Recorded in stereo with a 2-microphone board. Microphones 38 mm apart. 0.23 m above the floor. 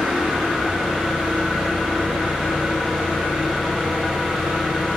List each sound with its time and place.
0.0 s an engine running: 5° right (ahead or behind), 2.5 m